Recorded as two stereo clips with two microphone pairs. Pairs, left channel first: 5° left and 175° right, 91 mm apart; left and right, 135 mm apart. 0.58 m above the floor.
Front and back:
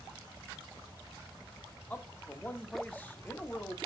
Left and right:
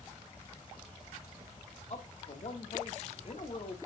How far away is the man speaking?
About 0.9 m.